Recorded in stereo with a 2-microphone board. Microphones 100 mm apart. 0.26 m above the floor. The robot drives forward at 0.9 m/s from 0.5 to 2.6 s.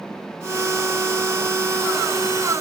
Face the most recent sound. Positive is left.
No sound to turn to.